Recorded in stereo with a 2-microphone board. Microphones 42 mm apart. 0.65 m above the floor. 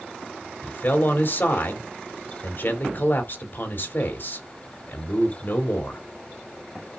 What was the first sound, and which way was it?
A man speaking, 55° left (ahead or behind).